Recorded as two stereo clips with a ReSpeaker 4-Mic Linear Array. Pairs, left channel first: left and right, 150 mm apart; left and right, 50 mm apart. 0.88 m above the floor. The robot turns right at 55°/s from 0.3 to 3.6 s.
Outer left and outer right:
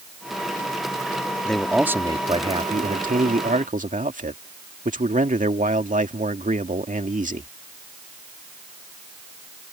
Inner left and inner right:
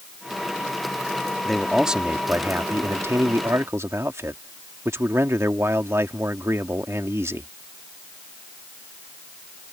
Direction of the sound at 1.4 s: 170° left.